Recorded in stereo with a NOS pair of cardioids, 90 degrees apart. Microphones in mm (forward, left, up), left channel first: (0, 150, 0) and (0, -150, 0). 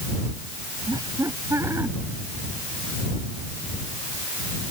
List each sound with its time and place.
0.9 s laughter: 15° right; by 1.9 s 10° right